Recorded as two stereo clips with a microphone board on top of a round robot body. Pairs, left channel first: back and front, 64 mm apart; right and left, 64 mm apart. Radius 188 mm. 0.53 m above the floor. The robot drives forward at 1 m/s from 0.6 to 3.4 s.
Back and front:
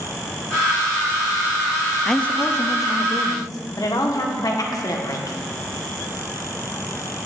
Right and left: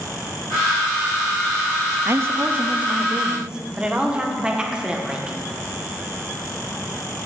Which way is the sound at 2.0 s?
90° left.